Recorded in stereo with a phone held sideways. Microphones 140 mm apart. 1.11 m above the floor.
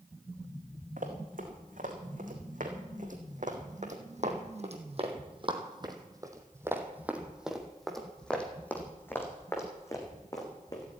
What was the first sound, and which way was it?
Running footsteps, 75° right (ahead or behind).